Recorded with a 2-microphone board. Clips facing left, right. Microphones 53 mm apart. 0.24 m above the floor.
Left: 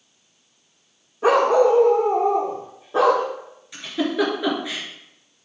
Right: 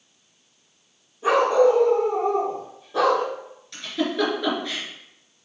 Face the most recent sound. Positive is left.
turn(degrees=10)  # may be behind; listen again after turning